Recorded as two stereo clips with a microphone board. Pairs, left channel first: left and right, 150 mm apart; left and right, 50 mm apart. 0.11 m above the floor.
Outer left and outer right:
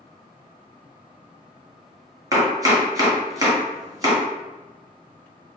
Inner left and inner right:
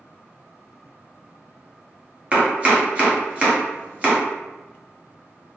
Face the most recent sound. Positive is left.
turn(degrees=-25)  # may be behind; listen again after turning